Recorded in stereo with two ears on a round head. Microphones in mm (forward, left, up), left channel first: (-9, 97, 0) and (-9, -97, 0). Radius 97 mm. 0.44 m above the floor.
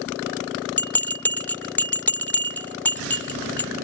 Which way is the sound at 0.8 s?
10° left (ahead or behind).